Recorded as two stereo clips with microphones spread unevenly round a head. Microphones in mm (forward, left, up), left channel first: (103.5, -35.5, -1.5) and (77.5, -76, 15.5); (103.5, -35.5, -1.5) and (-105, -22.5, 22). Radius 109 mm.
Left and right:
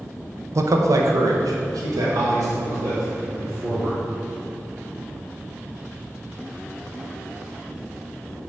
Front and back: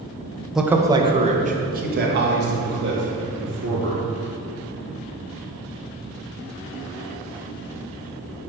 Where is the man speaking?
90° right, 0.7 m; by 4.0 s 155° right, 2 m.